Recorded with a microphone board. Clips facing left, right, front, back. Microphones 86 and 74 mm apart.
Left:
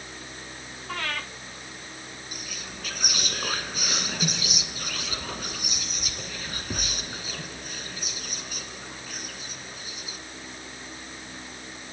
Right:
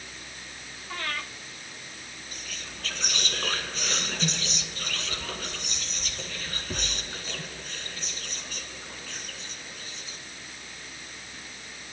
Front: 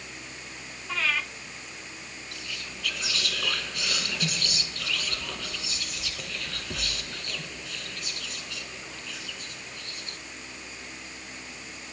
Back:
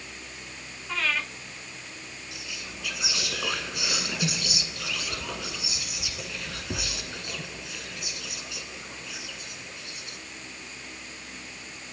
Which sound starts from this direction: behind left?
Whispering, at 2.3 s.